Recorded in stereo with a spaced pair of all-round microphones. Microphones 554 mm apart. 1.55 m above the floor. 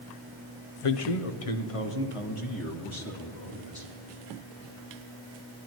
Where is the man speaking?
65° left (ahead or behind), 0.7 m; by 3.9 s 50° left (ahead or behind), 3 m.